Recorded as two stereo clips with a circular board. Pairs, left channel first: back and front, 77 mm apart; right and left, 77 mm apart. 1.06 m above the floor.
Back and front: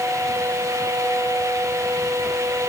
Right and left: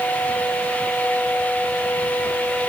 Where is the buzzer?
No buzzer in this recording.